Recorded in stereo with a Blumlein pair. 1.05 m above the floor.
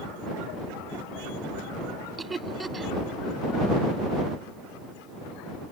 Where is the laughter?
10° right.